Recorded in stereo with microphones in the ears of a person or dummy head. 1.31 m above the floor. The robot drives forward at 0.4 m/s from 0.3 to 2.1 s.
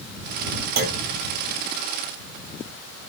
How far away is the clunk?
About 1.0 m.